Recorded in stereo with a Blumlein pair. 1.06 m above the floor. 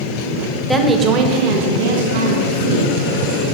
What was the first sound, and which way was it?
A woman speaking, straight ahead.